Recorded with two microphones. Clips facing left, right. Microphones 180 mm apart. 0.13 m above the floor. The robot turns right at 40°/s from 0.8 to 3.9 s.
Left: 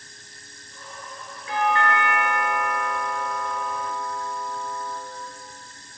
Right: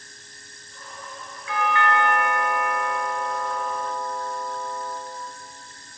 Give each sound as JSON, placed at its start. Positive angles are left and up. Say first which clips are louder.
{"t": 1.5, "sound": "a doorbell", "louder": "left 1 dB", "azimuth_deg": 80, "distance_m": 2.0}